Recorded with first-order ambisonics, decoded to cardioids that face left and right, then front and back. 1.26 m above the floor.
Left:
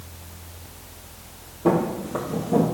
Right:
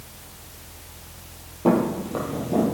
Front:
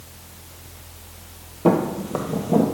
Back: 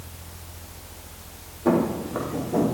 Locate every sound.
1.6 s footsteps: 10° right, 2 m; by 2.6 s 15° left, 2 m